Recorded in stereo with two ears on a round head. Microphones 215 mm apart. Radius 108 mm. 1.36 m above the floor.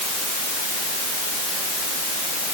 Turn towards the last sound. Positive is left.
No sound to turn to.